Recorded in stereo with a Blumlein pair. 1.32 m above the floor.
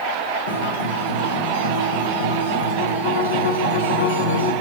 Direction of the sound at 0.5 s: 65° left.